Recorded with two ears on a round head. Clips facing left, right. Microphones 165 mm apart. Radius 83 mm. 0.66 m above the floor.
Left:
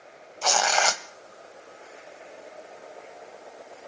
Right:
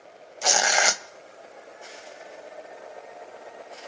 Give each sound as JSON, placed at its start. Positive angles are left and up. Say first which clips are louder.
{"t": 0.4, "sound": "tearing paper", "louder": "left 1 dB", "side_deg": -15, "distance_m": 0.6}